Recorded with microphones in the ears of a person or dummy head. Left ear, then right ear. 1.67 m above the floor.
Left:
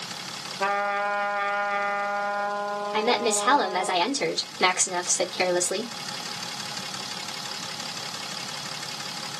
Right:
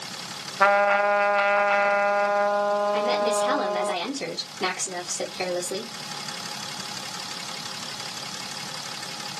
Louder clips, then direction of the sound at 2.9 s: Right 1 dB; 55° left (ahead or behind).